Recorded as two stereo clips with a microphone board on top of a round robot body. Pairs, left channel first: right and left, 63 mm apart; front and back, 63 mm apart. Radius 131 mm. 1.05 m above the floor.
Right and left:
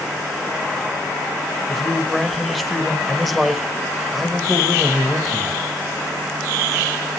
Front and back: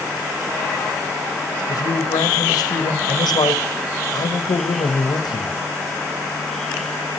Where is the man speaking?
Straight ahead, 1.4 m.